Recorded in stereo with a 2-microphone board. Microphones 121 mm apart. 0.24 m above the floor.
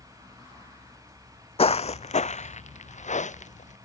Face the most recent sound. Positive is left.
turn(degrees=80)